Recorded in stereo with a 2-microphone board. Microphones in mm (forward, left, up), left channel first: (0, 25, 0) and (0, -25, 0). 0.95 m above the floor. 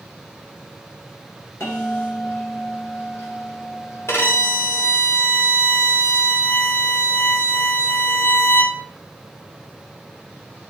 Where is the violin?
60° left (ahead or behind), 2 m.